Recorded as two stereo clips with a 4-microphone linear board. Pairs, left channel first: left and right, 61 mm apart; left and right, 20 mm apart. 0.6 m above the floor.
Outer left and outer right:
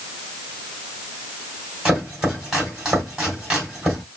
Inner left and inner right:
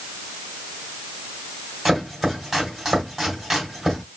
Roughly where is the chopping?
Centre.